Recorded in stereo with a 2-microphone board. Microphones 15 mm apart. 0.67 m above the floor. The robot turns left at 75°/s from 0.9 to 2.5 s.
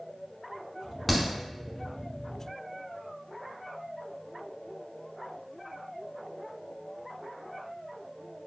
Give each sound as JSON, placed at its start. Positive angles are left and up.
{"t": 1.1, "sound": "a crack", "side_deg": 5, "distance_m": 0.9}